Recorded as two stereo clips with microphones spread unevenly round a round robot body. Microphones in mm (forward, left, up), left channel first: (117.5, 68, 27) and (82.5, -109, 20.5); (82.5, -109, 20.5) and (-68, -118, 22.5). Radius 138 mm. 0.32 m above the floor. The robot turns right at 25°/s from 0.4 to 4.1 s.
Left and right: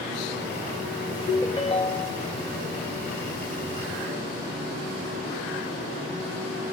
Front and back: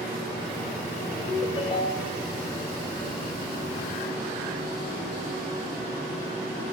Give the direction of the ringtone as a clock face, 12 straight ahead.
11 o'clock.